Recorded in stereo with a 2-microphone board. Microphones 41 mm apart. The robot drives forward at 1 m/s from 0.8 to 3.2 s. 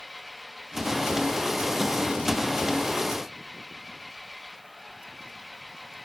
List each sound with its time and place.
0.0 s an engine running: 5° right (ahead or behind)